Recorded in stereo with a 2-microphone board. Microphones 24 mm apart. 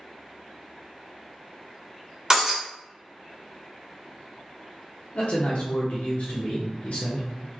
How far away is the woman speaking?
About 0.6 m.